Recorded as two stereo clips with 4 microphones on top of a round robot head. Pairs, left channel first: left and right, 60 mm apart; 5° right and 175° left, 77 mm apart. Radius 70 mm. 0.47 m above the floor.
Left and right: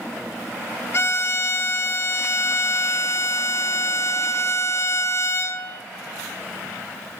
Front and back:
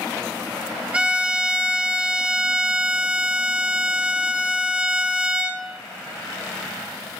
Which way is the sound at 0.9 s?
105° left.